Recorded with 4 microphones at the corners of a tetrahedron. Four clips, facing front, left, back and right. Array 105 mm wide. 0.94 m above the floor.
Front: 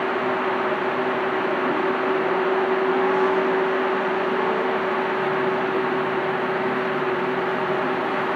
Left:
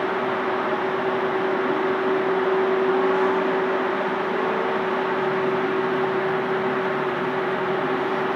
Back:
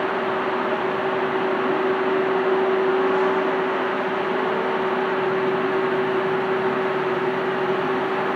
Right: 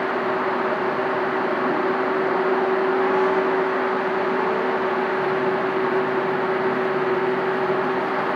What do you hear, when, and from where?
Only background noise.